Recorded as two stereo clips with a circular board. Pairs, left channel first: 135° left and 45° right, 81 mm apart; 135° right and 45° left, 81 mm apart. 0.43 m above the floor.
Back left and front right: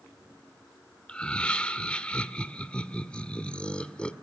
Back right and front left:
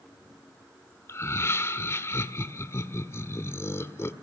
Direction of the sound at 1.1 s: 155° right.